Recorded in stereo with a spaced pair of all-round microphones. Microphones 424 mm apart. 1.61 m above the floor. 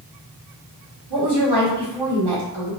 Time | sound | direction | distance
1.1 | a woman speaking | 65° right (ahead or behind) | 1.5 m